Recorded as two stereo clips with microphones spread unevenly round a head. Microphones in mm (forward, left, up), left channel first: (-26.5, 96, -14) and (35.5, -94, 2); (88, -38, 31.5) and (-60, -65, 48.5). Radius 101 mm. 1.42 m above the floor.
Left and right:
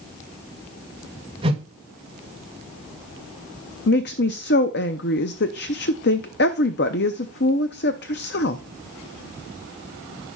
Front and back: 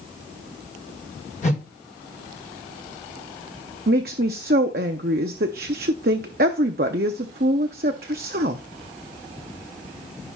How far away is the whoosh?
About 1.5 m.